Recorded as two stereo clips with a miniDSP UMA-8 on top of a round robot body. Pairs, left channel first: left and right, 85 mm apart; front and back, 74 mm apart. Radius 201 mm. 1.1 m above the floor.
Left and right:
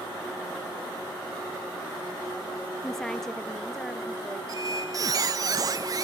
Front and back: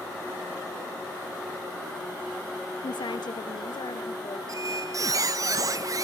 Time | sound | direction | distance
2.8 | a woman speaking | 5° left | 0.6 m
4.5 | a squeak | 140° right | 0.5 m